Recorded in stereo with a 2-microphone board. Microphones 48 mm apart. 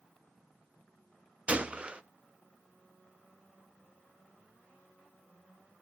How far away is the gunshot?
About 0.5 m.